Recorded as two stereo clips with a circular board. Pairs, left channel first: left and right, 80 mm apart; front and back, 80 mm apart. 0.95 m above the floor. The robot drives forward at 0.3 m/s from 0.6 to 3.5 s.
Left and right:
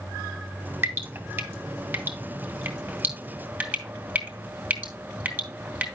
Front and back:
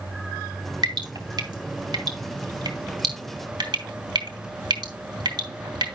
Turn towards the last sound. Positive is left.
turn(degrees=-160)